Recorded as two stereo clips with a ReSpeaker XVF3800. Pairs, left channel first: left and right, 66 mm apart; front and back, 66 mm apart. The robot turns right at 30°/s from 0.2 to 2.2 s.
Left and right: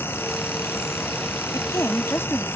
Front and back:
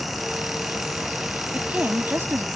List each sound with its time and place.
1.5 s a woman speaking: 110° left; by 2.5 s 135° left